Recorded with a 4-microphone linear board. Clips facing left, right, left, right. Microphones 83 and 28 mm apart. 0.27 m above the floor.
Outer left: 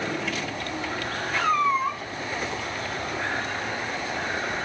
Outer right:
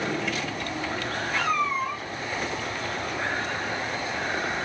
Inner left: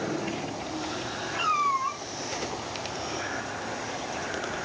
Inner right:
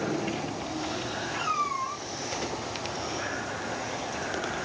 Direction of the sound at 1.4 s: 35° left (ahead or behind).